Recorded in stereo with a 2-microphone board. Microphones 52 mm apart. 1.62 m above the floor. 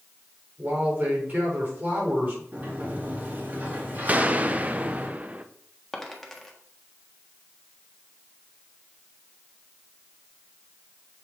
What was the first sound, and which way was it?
A man speaking, 35° right (ahead or behind).